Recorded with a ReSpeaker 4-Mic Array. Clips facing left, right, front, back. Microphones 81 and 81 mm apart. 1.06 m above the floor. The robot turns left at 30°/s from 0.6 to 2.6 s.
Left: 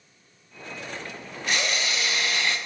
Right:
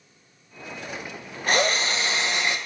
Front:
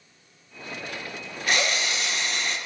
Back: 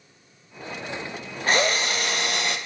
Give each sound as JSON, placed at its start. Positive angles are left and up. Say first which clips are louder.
{"t": 1.5, "sound": "a drill", "louder": "right 5 dB, back 4 dB", "azimuth_deg": -130, "distance_m": 1.1}